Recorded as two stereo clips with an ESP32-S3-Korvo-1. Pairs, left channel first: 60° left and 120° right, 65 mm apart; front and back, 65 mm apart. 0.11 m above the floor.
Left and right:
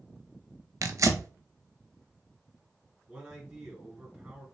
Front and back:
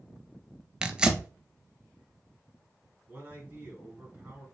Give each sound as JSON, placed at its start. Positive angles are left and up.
{"t": 0.8, "sound": "tearing paper", "azimuth_deg": -105, "distance_m": 0.5}
{"t": 3.1, "sound": "a man speaking", "azimuth_deg": -170, "distance_m": 1.5}